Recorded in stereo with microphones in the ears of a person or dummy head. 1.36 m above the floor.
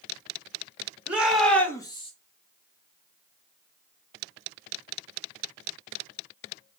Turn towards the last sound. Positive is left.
turn(degrees=35)  # may be behind; listen again after turning